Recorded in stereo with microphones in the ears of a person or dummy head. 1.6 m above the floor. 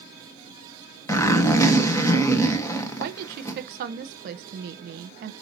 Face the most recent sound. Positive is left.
turn(degrees=-45)  # may be behind; listen again after turning